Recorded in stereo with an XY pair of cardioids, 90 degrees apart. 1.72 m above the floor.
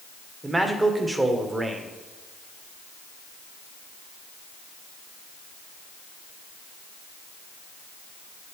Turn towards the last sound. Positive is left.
turn(degrees=-20)